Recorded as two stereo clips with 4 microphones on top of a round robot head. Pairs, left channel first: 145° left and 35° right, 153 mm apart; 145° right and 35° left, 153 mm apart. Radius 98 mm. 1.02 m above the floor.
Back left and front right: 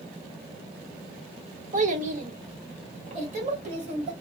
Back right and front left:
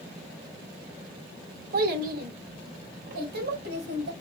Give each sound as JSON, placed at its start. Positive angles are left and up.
{"t": 1.7, "sound": "a child speaking", "azimuth_deg": 5, "distance_m": 0.9}